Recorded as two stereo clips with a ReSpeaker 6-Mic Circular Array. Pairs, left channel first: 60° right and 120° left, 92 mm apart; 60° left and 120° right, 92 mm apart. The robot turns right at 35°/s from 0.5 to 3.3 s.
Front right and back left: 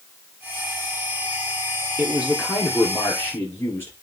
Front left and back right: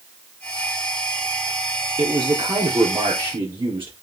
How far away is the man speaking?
About 3.5 m.